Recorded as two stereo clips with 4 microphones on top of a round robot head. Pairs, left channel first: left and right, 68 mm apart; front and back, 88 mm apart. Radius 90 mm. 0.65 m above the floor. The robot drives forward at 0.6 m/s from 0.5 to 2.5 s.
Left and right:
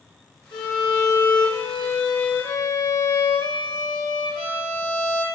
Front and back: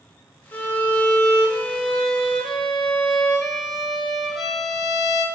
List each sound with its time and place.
0.5 s a violin: 65° left, 3 m; by 5.2 s 90° left, 2.5 m